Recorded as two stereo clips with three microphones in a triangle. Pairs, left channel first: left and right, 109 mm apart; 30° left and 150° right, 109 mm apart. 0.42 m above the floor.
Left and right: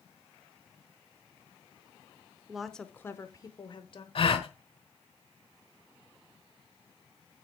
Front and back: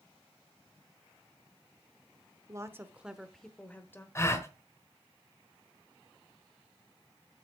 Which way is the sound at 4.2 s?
90° left.